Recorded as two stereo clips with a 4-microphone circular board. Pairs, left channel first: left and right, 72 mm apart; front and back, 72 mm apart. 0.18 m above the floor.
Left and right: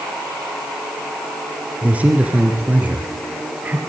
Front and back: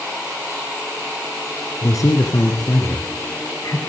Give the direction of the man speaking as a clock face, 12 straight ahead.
1 o'clock.